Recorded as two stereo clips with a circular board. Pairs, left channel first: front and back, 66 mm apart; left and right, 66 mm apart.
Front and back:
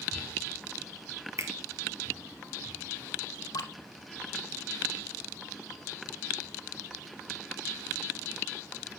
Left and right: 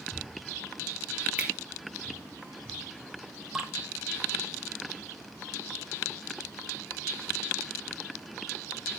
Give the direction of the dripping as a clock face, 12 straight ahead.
12 o'clock.